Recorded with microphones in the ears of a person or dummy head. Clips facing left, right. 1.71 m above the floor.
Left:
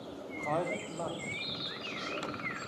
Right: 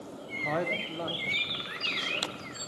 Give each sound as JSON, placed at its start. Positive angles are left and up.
{"t": 0.2, "sound": "a man speaking", "side_deg": -10, "distance_m": 1.6}